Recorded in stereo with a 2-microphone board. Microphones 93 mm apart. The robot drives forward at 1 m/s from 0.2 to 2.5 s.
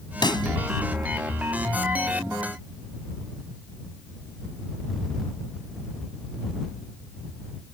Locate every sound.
0.2 s a pop: 50° left (ahead or behind); by 0.5 s 55° left (ahead or behind)